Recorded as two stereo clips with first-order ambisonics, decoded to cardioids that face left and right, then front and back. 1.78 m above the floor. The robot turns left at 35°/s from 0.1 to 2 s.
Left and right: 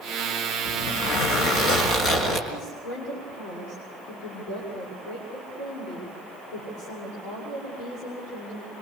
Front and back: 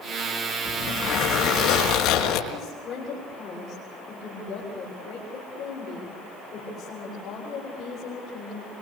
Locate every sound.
0.7 s a zipper: 75° left, 5 m; by 2.4 s 30° left, 5 m
2.5 s a woman speaking: 60° left, 6.5 m